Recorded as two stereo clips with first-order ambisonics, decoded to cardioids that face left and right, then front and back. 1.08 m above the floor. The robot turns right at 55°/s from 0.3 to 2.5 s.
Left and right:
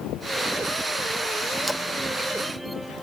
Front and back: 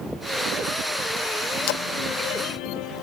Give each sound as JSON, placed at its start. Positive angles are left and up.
{"t": 1.7, "sound": "a splash", "azimuth_deg": 0, "distance_m": 0.8}